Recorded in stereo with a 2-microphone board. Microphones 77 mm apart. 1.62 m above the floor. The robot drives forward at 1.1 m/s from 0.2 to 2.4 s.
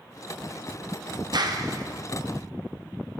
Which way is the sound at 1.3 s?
60° right (ahead or behind).